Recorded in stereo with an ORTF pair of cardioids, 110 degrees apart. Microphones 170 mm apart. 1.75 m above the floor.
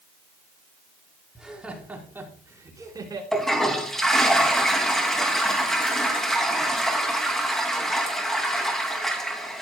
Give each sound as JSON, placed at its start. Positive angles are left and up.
{"t": 1.4, "sound": "laughter", "azimuth_deg": 0, "distance_m": 4.5}
{"t": 3.3, "sound": "a toilet flushing", "azimuth_deg": 5, "distance_m": 2.5}